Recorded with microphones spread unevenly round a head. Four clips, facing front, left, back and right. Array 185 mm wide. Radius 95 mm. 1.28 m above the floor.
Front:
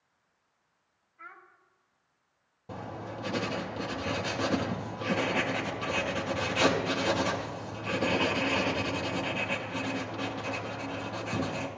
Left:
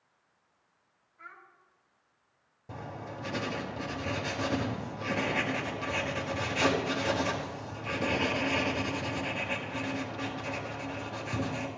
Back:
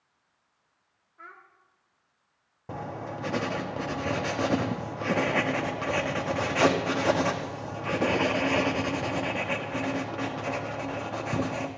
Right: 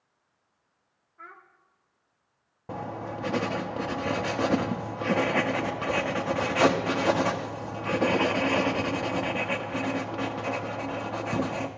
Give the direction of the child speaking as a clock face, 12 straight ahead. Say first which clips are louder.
Right 3 dB, back 1 dB; 4 o'clock.